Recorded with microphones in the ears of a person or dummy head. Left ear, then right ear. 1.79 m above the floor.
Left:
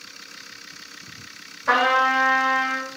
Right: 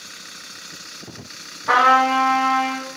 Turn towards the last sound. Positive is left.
turn(degrees=65)  # may be behind; listen again after turning